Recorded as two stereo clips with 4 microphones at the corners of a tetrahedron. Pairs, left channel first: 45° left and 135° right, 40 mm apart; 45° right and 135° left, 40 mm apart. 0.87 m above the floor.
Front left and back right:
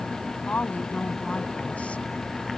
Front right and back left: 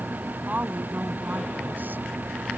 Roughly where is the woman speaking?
Left.